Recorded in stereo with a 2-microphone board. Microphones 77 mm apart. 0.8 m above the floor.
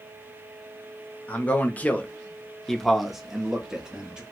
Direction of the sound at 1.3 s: 20° left (ahead or behind).